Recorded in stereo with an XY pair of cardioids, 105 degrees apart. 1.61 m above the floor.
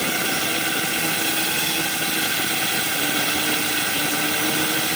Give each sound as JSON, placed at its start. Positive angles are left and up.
{"t": 0.0, "sound": "a drone", "azimuth_deg": -10}